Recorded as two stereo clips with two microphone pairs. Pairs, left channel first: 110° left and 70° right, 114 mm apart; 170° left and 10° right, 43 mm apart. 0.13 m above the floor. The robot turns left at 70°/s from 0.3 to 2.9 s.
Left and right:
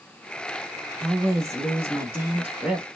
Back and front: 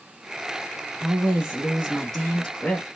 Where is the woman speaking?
20° right, 1.1 m; by 2.9 s 150° right, 1.1 m.